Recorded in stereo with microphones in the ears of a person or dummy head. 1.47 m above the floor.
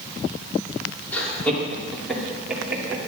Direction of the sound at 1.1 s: 10° left (ahead or behind).